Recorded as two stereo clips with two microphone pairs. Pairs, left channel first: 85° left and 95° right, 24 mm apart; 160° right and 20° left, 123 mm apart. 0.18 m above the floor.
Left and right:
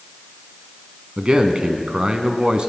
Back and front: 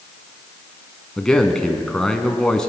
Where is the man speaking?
75° right, 1.4 m.